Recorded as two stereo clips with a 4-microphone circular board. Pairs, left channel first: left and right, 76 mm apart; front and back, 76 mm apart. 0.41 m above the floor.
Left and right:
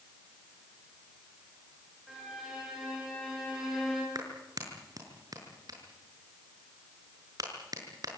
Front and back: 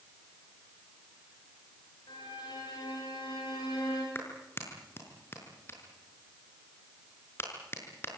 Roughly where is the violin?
Ahead.